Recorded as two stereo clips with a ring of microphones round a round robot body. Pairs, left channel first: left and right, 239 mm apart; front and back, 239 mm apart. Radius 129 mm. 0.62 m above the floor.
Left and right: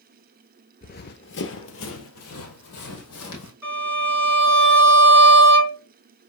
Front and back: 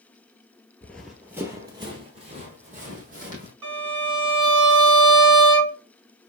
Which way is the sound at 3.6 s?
170° right.